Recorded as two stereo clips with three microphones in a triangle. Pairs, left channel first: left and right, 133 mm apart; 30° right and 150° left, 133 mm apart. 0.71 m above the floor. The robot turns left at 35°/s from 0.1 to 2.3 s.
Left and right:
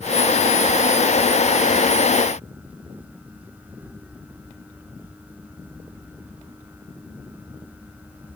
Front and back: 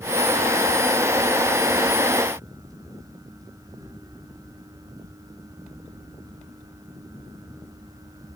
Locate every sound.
Only background noise.